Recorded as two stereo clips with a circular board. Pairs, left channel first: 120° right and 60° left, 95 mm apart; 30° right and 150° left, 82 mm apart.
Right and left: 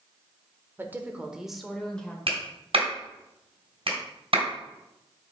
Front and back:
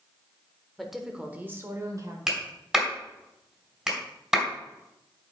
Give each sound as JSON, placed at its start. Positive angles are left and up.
{"t": 0.8, "sound": "a woman speaking", "azimuth_deg": 55, "distance_m": 1.1}
{"t": 2.3, "sound": "a clap", "azimuth_deg": 70, "distance_m": 2.5}